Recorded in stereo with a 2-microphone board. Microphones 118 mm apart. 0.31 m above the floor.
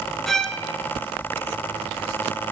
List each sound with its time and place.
0.3 s a violin: 5° left (ahead or behind), 3 m